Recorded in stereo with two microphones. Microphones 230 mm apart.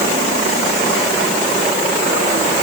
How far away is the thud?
I don't hear a thud.